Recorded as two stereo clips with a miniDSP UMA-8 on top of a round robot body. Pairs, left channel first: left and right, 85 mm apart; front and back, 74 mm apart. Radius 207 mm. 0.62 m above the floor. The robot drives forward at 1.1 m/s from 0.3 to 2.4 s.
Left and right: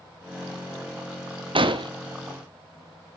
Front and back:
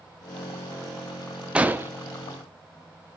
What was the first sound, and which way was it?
An explosion, 105° right.